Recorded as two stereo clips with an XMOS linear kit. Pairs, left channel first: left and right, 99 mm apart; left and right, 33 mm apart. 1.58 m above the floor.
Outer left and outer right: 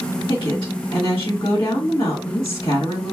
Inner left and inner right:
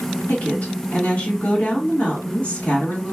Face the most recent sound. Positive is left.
turn(degrees=60)  # may be behind; listen again after turning